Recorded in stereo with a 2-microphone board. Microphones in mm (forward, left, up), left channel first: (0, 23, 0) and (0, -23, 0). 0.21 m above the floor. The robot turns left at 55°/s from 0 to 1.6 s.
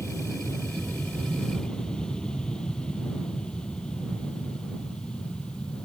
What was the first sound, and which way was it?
An aircraft, 70° left (ahead or behind).